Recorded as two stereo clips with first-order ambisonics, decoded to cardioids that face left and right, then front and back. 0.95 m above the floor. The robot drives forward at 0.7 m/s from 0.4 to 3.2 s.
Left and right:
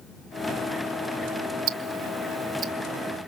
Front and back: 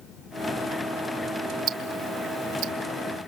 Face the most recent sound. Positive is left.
turn(degrees=-160)